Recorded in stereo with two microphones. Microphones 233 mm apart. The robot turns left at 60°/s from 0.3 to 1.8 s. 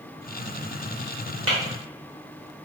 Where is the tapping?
80° right, 1.1 m.